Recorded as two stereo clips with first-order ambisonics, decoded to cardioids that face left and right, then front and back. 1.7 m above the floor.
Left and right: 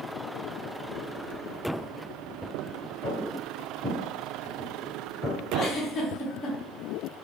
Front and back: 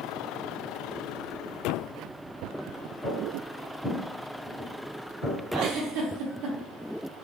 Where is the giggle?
150° left, 0.6 m.